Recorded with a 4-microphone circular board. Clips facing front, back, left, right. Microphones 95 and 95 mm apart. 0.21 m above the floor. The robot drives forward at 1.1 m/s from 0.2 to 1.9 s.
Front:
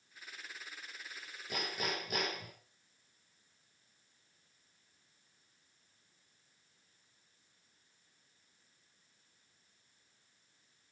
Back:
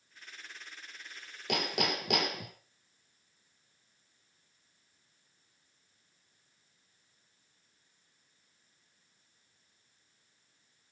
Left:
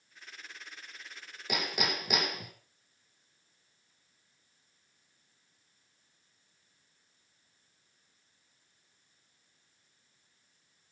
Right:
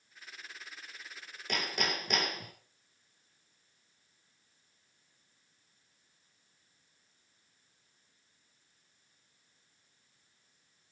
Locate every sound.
1.5 s hammering: 170° left, 2.5 m; by 2.5 s 175° left, 3 m